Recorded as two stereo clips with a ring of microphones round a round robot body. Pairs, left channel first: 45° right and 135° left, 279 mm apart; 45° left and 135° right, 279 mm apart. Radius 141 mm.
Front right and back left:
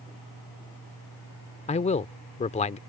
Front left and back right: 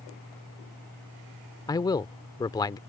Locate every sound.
1.7 s a man speaking: 15° right